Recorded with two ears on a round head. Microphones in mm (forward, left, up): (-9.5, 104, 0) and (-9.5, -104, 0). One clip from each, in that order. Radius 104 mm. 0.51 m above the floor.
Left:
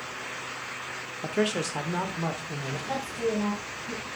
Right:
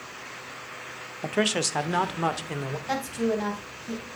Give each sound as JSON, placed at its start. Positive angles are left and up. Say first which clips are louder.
{"t": 1.2, "sound": "a man speaking", "louder": "right 3 dB", "side_deg": -15, "distance_m": 0.8}
{"t": 2.9, "sound": "a woman speaking", "louder": "right 2 dB", "side_deg": -60, "distance_m": 3.0}